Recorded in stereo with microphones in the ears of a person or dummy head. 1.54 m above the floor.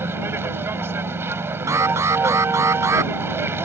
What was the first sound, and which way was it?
A vehicle, 15° right (ahead or behind).